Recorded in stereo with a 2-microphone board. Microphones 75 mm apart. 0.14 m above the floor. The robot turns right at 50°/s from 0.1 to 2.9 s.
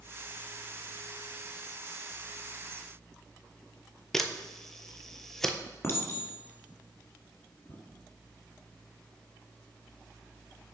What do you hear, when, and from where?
4.1 s a camera shutter: 5° left (ahead or behind), 0.6 m
5.8 s a clink: 35° left (ahead or behind), 1.6 m